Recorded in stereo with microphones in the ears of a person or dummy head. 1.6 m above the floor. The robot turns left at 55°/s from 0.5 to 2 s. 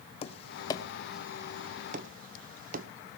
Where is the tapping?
30° left (ahead or behind), 0.9 m; by 2.9 s 50° right (ahead or behind), 0.9 m.